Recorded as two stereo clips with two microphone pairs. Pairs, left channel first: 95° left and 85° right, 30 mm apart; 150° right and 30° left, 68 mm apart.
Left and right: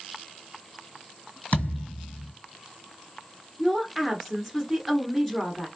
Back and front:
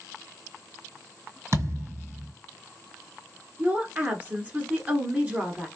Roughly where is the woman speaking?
Ahead left.